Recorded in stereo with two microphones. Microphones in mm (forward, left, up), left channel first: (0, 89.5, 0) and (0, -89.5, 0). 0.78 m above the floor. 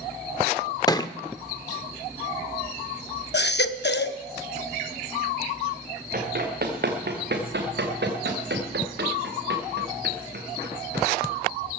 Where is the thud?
20° left (ahead or behind), 0.5 m.